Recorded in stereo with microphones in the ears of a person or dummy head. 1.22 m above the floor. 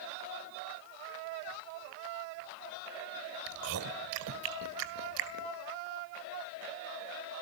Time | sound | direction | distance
3.5 | chewing | 65° right (ahead or behind) | 1.9 m